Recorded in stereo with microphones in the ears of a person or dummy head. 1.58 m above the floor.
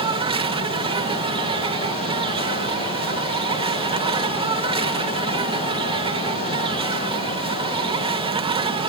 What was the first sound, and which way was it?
An insect, 30° right (ahead or behind).